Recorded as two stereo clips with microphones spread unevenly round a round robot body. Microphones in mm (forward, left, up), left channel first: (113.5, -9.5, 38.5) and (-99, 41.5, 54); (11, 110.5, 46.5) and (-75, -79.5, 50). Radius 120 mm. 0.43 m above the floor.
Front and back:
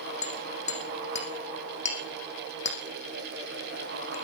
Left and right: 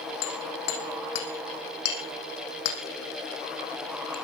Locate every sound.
0.2 s hammering: 45° left, 5.5 m